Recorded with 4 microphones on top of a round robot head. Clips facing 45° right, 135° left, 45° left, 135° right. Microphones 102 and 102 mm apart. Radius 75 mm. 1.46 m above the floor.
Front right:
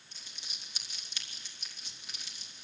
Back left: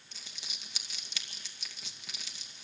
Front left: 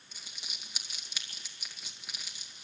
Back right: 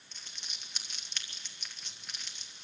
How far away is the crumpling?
About 2 m.